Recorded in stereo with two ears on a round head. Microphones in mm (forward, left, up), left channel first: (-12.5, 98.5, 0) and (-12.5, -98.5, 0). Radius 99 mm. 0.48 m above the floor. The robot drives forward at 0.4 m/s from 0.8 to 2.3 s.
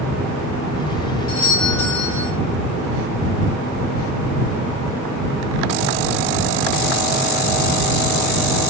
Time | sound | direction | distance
1.3 | a doorbell | 60° left (ahead or behind) | 6 m